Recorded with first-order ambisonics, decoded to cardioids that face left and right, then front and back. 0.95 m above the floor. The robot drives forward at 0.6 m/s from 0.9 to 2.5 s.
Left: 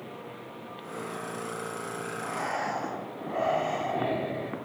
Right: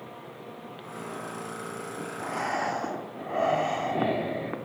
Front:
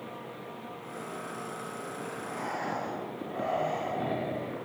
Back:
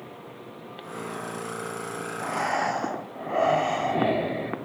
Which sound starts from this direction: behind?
Breathing, at 2.2 s.